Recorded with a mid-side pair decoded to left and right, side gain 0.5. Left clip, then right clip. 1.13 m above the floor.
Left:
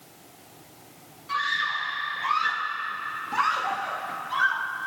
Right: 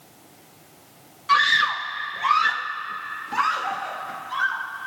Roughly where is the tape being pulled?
I don't hear tape being pulled.